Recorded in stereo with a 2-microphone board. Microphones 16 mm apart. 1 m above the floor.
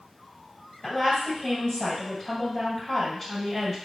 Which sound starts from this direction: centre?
A woman speaking, at 0.8 s.